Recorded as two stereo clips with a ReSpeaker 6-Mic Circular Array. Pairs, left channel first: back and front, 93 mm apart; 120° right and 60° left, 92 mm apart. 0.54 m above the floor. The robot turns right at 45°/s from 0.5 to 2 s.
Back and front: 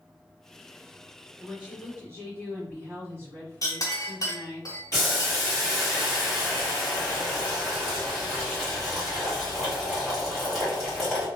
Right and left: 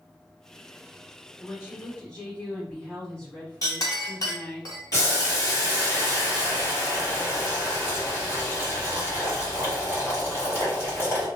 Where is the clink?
150° right, 0.8 m.